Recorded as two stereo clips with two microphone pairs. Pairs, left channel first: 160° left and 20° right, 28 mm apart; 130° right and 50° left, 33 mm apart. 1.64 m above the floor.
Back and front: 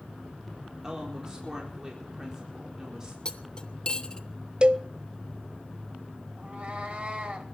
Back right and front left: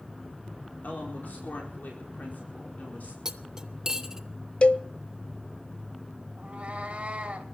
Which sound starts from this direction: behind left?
Cutlery clinking, at 3.2 s.